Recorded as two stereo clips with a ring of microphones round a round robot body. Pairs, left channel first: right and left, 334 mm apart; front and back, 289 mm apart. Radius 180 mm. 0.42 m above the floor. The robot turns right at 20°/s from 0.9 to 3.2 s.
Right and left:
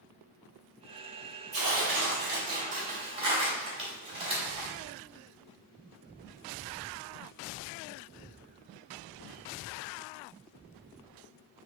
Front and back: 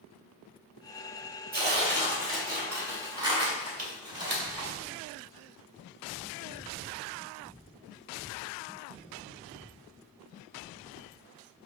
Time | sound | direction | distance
1.5 | tearing paper | 130° left | 2.5 m